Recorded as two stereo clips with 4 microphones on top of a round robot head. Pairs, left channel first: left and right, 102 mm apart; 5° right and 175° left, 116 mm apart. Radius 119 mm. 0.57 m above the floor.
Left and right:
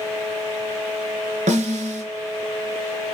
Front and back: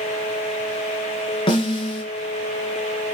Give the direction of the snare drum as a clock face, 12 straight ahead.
2 o'clock.